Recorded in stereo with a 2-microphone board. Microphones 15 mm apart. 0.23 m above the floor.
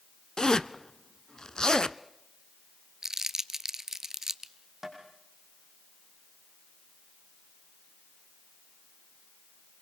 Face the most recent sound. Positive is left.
turn(degrees=-20)  # may be behind; listen again after turning